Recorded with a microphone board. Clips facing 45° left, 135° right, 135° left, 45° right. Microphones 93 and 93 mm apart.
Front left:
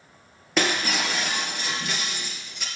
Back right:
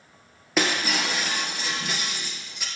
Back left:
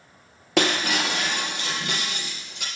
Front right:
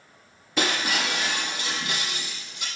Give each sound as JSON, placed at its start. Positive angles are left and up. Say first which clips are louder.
{"t": 0.6, "sound": "breaking glass", "louder": "even, back left 3 dB", "azimuth_deg": 140, "distance_m": 3.0}